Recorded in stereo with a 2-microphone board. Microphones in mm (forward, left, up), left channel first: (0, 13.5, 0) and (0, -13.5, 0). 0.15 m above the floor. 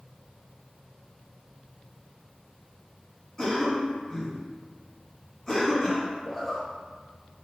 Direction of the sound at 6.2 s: Centre (ahead or behind).